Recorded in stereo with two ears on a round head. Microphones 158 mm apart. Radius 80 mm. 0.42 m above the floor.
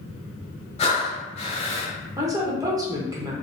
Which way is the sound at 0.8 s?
35° left (ahead or behind).